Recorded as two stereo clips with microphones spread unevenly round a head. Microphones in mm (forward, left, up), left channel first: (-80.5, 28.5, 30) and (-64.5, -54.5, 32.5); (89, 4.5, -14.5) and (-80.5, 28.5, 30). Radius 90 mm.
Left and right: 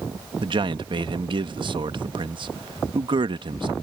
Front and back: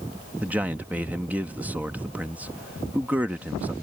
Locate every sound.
0.4 s a man speaking: 105° right